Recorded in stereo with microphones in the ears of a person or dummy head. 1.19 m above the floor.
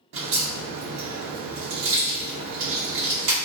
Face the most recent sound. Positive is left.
turn(degrees=-65)  # may be behind; listen again after turning